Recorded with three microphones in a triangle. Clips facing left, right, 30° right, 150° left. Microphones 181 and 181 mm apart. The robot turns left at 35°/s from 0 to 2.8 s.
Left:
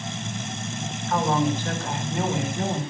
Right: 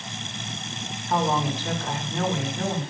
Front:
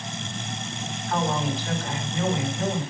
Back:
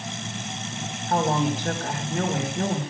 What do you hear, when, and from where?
1.1 s a woman speaking: 155° right, 3.5 m; by 2.8 s 145° left, 3.5 m